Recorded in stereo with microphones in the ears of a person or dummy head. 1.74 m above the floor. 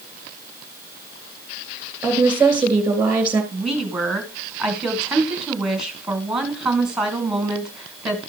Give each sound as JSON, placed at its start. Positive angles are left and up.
{"t": 2.0, "sound": "a woman speaking", "side_deg": -10, "distance_m": 3.5}
{"t": 3.5, "sound": "a woman speaking", "side_deg": 0, "distance_m": 1.9}